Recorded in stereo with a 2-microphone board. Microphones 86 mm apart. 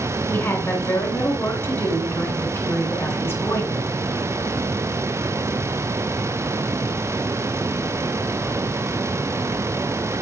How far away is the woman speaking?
About 2.5 m.